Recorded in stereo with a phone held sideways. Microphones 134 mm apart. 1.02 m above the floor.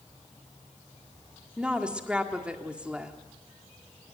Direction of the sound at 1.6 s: 10° right (ahead or behind).